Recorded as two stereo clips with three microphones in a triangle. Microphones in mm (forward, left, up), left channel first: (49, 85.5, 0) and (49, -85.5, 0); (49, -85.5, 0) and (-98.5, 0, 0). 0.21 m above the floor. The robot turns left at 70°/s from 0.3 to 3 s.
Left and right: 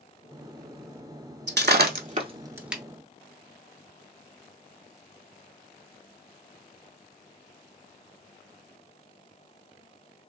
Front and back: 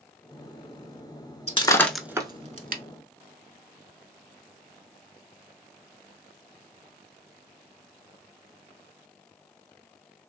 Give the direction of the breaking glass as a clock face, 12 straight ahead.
3 o'clock.